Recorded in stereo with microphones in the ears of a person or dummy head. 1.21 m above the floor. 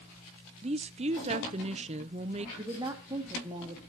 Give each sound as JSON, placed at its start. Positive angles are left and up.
{"t": 0.6, "sound": "a woman speaking", "side_deg": -30, "distance_m": 0.5}
{"t": 2.6, "sound": "a woman speaking", "side_deg": -25, "distance_m": 1.5}